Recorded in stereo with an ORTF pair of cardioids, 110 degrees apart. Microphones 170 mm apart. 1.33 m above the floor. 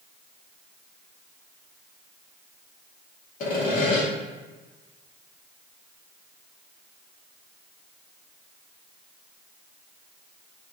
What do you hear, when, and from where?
3.4 s sawing: 50° left, 1.5 m